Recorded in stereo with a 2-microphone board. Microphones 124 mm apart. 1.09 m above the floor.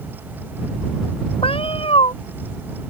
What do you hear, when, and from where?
1.4 s a cat meowing: 50° left (ahead or behind)